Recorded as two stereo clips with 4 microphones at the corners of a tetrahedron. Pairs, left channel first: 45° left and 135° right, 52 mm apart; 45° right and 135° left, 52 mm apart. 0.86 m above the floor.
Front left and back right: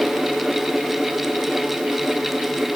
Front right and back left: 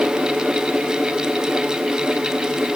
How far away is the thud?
I don't hear a thud.